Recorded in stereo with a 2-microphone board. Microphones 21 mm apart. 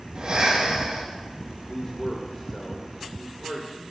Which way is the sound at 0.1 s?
45° right (ahead or behind).